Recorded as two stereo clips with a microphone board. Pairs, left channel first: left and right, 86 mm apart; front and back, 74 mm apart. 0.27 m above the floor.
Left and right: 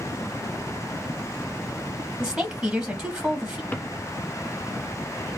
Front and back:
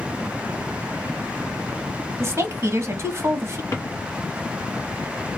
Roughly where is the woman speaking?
Behind.